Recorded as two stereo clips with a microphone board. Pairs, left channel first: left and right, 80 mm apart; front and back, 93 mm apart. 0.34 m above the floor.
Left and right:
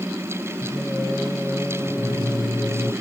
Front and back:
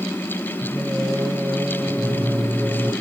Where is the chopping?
I don't hear chopping.